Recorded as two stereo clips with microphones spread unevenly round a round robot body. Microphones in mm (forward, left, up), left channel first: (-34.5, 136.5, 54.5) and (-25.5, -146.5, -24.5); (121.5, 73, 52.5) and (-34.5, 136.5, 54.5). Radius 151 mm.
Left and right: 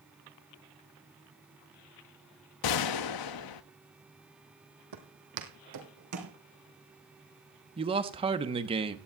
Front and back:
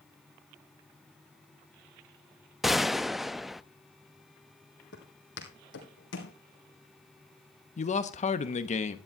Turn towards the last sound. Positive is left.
turn(degrees=-45)